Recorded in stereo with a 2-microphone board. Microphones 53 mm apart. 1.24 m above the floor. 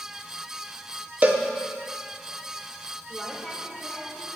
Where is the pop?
I don't hear a pop.